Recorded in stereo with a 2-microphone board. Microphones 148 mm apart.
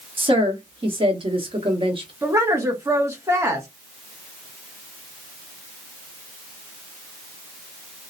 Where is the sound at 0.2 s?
35° right (ahead or behind), 0.9 m.